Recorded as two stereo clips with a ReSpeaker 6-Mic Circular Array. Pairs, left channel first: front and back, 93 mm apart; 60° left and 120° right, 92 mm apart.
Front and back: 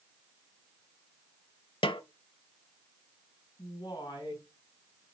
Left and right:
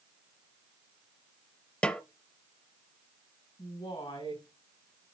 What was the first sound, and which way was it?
A snare drum, 20° right.